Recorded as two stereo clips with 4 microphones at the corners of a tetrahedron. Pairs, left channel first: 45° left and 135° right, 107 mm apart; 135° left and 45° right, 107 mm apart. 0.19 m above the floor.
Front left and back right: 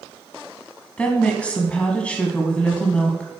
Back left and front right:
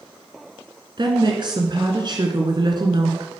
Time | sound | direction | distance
1.0 | a woman speaking | 30° right | 1.5 m